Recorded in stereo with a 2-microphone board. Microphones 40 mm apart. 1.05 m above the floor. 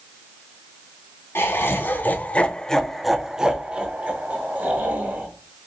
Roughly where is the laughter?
Left.